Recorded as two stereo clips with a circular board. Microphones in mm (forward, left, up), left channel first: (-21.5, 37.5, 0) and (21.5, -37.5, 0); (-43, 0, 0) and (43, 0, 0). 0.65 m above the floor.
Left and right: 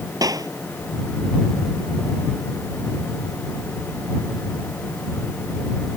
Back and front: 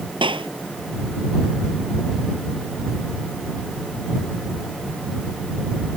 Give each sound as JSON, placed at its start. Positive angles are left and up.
{"t": 0.2, "sound": "a clap", "azimuth_deg": -15}